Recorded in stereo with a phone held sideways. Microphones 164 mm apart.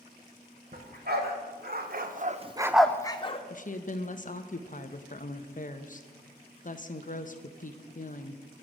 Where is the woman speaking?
50° left (ahead or behind), 0.7 m.